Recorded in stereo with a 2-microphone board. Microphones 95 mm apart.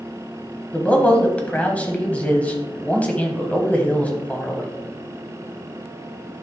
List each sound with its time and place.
0.7 s a man speaking: 15° left (ahead or behind), 1.2 m